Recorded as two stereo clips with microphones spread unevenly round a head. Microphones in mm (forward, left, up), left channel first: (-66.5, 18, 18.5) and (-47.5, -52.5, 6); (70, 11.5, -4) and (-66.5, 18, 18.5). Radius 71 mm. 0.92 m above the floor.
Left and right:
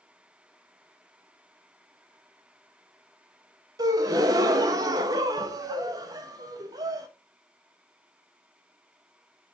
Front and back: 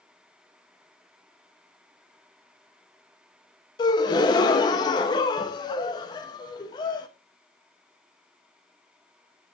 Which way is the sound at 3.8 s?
55° right.